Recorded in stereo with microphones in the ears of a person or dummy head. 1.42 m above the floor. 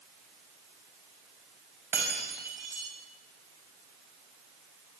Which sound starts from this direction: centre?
Breaking glass, at 1.9 s.